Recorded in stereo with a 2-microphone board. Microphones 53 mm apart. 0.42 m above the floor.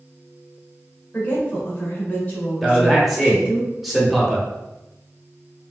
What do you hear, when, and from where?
1.1 s a woman speaking: 30° left (ahead or behind), 1.3 m
2.6 s a man speaking: 5° right (ahead or behind), 0.9 m